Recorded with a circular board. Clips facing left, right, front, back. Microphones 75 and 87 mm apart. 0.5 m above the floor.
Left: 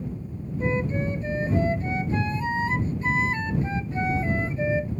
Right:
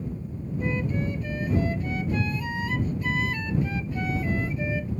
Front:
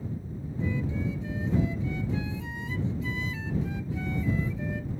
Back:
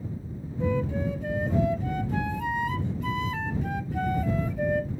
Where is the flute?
150° left.